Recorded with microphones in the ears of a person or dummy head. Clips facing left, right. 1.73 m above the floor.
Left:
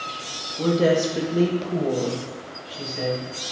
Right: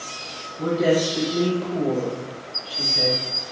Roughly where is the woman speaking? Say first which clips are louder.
Left 1 dB; left.